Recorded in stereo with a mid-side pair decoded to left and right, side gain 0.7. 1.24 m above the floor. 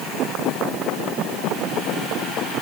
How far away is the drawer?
I don't hear a drawer.